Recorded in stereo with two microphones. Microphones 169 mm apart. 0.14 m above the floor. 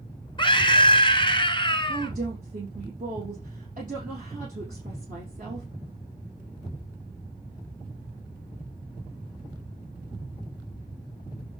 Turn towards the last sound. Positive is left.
turn(degrees=-50)  # may be behind; listen again after turning